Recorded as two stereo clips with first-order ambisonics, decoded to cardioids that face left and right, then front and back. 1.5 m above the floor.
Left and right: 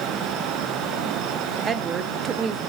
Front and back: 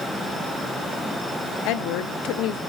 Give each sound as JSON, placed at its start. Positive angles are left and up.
{"t": 1.6, "sound": "a woman speaking", "azimuth_deg": -25, "distance_m": 0.9}